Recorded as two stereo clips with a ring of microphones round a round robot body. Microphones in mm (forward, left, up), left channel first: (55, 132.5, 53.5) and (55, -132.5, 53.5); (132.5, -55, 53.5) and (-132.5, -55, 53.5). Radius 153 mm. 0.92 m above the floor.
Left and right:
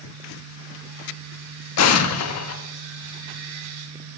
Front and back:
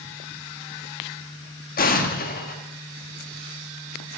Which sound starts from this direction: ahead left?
An explosion, at 1.8 s.